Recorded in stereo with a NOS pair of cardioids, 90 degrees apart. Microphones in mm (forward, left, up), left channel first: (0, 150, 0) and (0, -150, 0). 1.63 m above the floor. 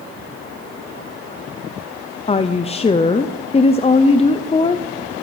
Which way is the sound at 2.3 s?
20° left.